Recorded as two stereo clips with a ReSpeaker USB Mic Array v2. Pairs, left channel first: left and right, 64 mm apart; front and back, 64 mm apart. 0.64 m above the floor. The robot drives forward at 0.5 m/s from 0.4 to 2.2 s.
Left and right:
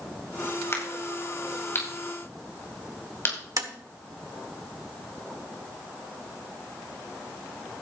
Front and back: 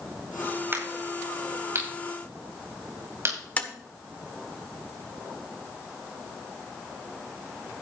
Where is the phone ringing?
No phone ringing in this recording.